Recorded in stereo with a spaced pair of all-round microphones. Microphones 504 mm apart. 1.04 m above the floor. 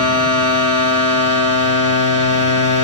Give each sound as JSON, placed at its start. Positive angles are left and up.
{"t": 0.0, "sound": "a machine running", "side_deg": -25, "distance_m": 1.4}